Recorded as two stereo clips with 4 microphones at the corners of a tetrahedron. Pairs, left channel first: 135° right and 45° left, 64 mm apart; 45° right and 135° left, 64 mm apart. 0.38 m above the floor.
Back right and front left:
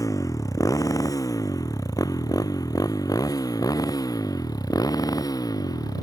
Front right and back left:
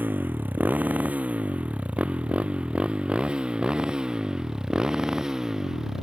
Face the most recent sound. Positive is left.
turn(degrees=-145)